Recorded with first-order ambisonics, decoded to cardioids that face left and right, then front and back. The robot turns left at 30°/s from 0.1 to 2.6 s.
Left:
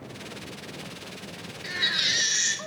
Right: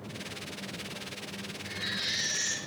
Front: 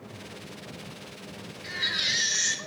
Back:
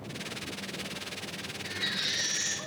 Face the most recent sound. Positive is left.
turn(degrees=50)